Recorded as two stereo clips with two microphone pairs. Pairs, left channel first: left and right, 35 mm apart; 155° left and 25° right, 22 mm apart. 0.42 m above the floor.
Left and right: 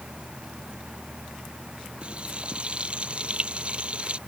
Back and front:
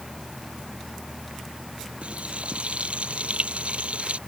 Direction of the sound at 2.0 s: 35° right.